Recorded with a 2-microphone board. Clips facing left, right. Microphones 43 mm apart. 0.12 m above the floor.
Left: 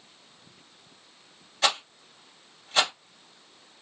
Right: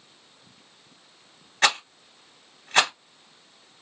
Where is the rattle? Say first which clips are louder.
Right 4 dB; 50° right (ahead or behind), 1.7 m.